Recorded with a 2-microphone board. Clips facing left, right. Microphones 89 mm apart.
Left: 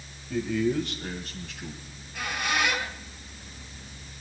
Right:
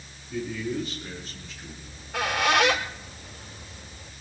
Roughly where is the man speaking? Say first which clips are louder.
Left 4 dB; left.